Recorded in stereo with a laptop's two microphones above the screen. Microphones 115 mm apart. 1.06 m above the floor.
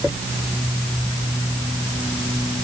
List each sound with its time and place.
Only background noise.